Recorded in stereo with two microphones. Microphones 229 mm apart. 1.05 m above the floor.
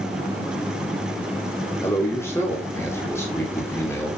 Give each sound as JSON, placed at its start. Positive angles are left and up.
{"t": 1.8, "sound": "a man speaking", "side_deg": 10, "distance_m": 3.5}